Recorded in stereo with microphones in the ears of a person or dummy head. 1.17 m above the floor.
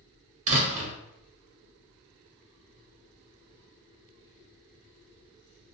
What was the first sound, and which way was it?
A door slam, 40° right (ahead or behind).